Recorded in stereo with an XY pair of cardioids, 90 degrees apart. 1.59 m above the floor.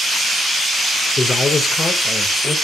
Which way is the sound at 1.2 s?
30° left.